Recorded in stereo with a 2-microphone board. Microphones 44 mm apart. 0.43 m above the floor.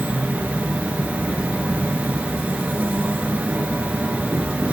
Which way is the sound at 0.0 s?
35° right (ahead or behind).